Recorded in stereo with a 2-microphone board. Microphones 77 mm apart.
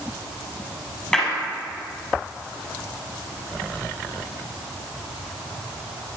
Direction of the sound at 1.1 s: 10° left (ahead or behind).